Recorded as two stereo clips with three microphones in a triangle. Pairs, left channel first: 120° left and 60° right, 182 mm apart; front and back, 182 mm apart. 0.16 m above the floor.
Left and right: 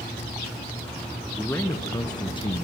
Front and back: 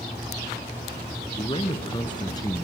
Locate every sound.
1.4 s a man speaking: 45° left, 2.0 m; by 2.6 s 65° left, 2.5 m